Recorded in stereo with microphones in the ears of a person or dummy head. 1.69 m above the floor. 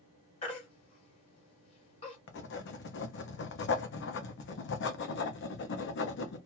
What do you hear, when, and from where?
0.4 s a baby crying: 25° left (ahead or behind), 1.4 m
2.3 s writing: 70° left (ahead or behind), 0.7 m